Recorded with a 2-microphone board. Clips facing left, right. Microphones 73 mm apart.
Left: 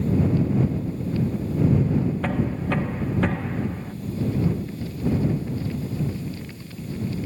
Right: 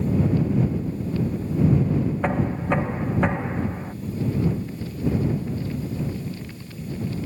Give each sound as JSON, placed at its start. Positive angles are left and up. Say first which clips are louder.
{"t": 2.2, "sound": "knocking", "louder": "right 2 dB", "side_deg": -20}